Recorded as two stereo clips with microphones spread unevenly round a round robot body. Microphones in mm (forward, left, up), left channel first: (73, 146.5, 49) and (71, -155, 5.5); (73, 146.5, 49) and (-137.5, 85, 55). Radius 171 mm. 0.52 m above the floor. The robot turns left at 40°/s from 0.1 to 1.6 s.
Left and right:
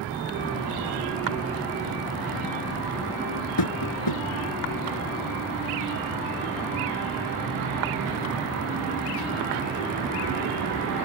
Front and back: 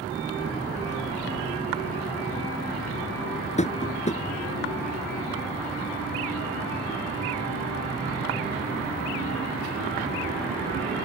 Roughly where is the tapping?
Left.